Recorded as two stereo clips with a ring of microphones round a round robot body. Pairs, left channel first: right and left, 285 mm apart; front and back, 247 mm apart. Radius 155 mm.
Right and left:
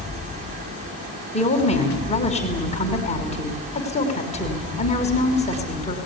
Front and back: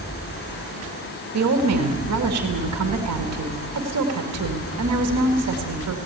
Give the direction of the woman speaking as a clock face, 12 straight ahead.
5 o'clock.